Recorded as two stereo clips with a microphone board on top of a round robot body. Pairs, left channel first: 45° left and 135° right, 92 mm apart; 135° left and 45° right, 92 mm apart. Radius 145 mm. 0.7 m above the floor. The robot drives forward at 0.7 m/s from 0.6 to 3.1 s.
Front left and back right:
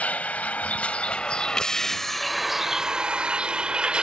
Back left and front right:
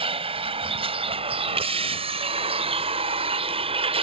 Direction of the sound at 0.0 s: 30° right.